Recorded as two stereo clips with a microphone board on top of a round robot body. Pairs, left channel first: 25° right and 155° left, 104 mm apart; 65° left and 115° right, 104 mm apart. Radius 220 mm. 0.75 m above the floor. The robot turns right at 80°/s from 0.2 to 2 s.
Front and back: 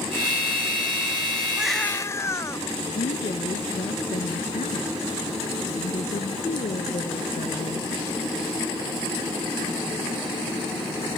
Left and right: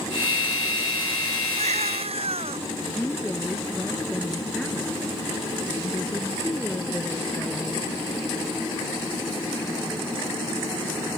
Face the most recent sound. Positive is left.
turn(degrees=-15)